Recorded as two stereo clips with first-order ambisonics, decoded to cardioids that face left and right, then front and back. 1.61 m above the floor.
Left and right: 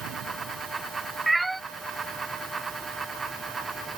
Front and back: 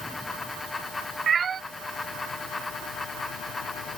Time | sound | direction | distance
1.3 | a cat meowing | 165° right | ?